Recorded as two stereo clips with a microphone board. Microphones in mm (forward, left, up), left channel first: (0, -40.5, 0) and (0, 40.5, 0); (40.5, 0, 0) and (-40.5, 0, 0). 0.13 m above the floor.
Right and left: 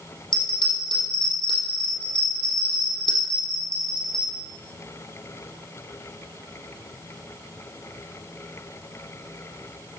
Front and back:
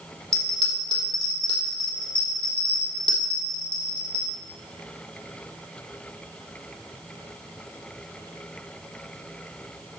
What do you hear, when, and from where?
0.3 s a bell: 75° right, 4 m